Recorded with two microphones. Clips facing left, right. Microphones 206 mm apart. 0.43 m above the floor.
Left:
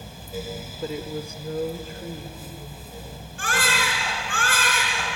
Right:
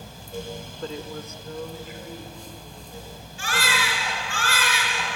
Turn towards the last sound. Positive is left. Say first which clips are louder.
# left 1 dB
turn(degrees=55)  # may be behind; listen again after turning